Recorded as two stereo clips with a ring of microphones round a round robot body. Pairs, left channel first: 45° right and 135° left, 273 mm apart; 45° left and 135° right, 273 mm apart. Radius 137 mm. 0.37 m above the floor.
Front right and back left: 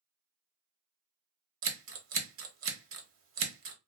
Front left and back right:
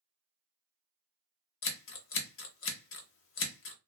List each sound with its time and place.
1.6 s scissors: 90° left, 0.7 m